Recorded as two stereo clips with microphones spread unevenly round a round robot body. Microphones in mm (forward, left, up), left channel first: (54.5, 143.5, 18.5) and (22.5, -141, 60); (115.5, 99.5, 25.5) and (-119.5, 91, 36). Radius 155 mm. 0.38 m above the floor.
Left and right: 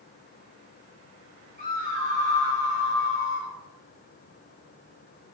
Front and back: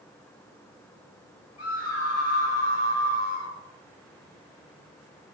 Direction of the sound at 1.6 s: 20° left.